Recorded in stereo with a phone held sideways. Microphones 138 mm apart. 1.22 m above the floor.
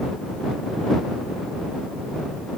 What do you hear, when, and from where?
Only background noise.